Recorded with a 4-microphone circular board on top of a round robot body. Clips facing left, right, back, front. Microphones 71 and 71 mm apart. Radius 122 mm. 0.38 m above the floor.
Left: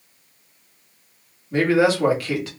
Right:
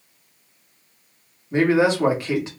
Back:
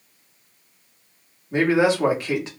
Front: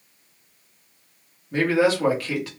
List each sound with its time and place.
1.5 s a man speaking: 135° right, 1.5 m